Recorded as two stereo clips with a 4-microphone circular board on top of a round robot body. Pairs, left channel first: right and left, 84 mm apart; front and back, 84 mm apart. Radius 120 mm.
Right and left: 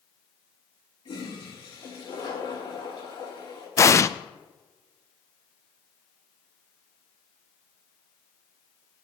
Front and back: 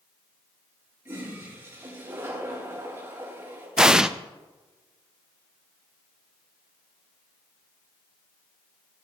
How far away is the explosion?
About 0.6 m.